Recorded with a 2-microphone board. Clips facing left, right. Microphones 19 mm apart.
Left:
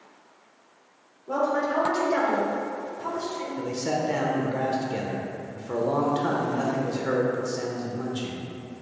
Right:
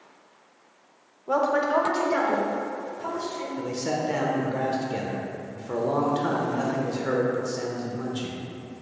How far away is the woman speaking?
About 1.0 m.